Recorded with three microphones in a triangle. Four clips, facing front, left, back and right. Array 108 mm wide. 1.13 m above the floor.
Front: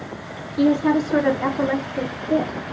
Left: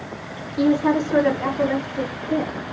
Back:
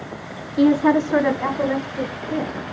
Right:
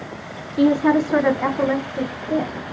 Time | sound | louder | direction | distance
0.6 | a woman speaking | right 2 dB, back 2 dB | 160° right | 0.9 m